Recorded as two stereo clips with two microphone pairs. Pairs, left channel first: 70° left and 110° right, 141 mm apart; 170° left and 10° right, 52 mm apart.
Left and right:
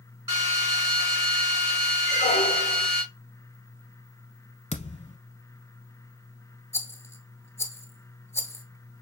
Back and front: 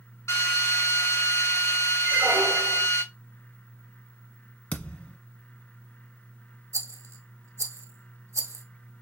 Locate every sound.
0.3 s a drill: straight behind, 3.5 m
2.0 s a squeak: 40° left, 0.8 m
4.7 s a thud: 105° left, 0.8 m
6.7 s a rattle: straight ahead, 0.8 m